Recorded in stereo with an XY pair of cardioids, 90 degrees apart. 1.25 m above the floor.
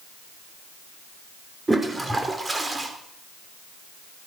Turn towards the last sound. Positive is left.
turn(degrees=-20)